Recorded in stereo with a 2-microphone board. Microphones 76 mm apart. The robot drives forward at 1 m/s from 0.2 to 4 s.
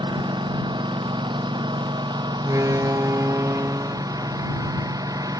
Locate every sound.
0.0 s a lawn mower: 80° right; by 5.4 s 55° right (ahead or behind)
2.4 s a door slam: 50° right (ahead or behind); by 5.3 s 25° right (ahead or behind)